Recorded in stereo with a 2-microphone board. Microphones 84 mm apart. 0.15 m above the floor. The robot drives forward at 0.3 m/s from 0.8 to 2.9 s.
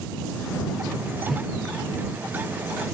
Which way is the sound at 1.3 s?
5° left (ahead or behind).